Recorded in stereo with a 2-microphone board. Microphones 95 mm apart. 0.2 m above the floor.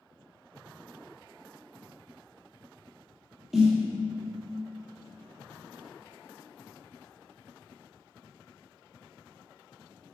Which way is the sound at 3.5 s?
5° right (ahead or behind).